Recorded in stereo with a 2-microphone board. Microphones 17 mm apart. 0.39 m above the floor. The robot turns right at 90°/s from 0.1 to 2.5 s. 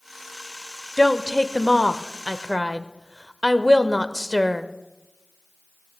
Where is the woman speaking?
40° left, 0.9 m; by 4.7 s straight behind, 0.9 m.